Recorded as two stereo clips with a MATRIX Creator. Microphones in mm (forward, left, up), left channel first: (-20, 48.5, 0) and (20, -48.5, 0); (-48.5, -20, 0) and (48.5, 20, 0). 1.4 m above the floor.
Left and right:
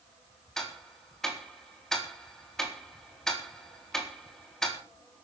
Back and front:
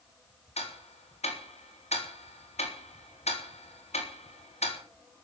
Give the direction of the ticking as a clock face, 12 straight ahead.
5 o'clock.